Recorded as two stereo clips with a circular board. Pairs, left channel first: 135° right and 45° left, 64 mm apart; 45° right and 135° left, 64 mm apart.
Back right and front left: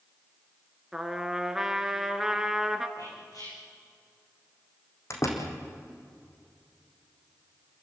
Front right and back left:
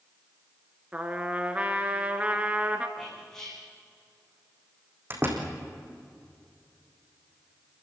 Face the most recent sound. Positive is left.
turn(degrees=-175)